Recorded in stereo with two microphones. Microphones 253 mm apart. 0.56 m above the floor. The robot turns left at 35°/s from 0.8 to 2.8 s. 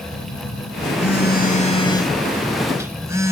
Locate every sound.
0.1 s a phone buzzing: 60° left, 3.5 m; by 3.3 s 10° right, 3.5 m